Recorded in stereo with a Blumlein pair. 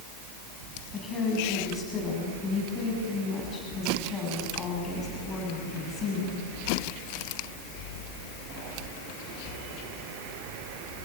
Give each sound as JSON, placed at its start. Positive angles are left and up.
{"t": 0.9, "sound": "a woman speaking", "azimuth_deg": 20, "distance_m": 7.5}